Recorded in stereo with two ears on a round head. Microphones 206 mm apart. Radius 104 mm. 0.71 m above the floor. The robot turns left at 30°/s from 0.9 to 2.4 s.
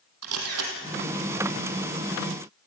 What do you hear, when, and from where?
0.2 s a camera shutter: 70° right (ahead or behind), 4 m